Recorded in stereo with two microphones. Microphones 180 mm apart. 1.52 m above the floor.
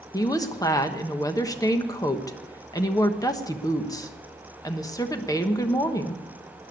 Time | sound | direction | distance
0.1 | a woman speaking | 20° left (ahead or behind) | 1.2 m